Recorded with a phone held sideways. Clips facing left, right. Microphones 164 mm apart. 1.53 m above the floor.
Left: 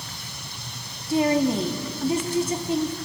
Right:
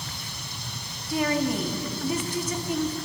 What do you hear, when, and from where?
1.1 s a woman speaking: 25° left (ahead or behind), 2.5 m